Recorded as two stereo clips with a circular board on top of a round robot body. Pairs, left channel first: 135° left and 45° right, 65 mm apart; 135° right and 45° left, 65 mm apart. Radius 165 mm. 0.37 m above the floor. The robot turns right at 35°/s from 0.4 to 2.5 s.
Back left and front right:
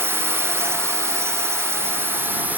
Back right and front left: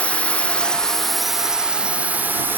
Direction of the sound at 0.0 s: 70° right.